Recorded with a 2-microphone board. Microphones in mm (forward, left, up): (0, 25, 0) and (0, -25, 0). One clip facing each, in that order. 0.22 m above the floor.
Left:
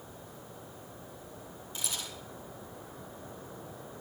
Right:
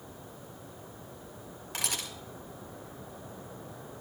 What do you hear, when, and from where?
1.7 s a camera shutter: 75° right (ahead or behind), 1.5 m